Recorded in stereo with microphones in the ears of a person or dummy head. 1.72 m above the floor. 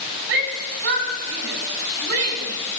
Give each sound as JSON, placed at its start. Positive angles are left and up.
{"t": 0.3, "sound": "a shout", "side_deg": -75, "distance_m": 4.5}